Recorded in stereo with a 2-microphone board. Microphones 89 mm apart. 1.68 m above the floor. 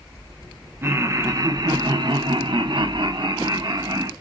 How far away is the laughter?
About 1.2 m.